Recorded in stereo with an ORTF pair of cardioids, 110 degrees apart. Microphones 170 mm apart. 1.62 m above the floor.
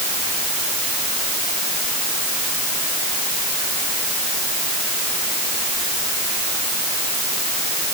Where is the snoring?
I don't hear snoring.